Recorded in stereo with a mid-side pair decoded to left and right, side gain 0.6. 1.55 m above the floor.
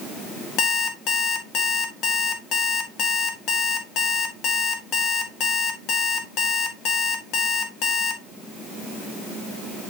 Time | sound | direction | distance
0.6 | an alarm clock | 60° left | 2 m